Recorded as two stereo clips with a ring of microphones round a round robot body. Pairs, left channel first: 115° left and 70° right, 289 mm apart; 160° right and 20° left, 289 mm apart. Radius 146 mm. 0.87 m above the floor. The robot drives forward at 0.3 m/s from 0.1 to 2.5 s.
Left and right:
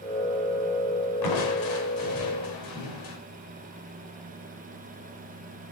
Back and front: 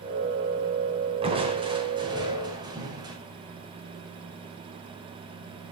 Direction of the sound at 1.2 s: 95° left.